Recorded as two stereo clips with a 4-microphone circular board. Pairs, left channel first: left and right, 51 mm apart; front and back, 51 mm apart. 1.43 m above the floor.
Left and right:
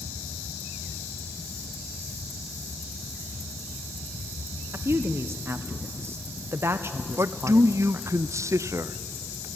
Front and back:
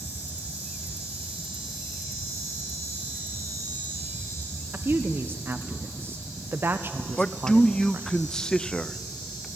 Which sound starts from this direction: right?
A man speaking, at 7.2 s.